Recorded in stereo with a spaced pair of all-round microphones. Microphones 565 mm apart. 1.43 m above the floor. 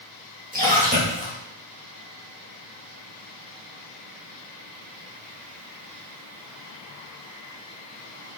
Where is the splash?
15° right (ahead or behind), 2.5 m.